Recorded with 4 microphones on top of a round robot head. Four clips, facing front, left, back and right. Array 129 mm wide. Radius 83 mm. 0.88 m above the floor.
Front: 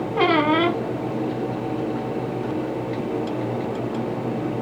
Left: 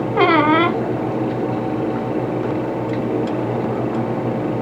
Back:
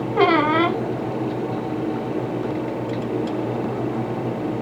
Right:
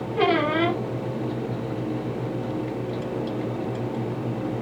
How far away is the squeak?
About 1.0 m.